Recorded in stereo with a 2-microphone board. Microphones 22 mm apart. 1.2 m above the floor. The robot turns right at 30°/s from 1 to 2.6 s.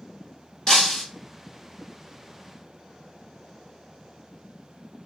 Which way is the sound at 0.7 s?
25° left (ahead or behind).